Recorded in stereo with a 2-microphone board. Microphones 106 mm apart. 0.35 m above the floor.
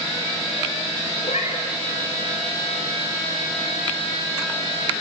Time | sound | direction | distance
1.2 | a cat meowing | 80° left | 4 m